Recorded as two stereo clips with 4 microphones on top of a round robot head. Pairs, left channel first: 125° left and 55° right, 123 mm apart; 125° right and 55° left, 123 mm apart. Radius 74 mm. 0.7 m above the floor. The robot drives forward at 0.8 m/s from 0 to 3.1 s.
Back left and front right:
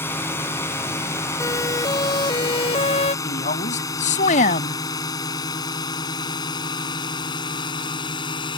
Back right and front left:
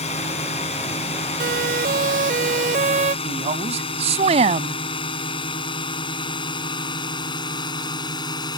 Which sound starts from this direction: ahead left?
A siren, at 1.4 s.